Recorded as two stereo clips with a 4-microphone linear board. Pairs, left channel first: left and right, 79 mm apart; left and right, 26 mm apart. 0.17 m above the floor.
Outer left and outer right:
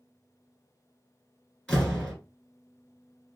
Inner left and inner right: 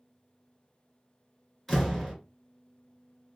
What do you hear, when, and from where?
1.7 s a door slam: 10° left (ahead or behind), 1.9 m